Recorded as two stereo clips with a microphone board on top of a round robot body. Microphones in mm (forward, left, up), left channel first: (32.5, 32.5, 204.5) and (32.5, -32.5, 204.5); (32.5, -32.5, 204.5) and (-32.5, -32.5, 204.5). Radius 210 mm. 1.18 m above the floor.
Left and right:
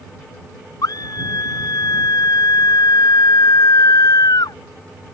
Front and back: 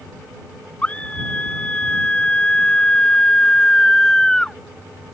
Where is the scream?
75° left; by 4.6 s 85° left.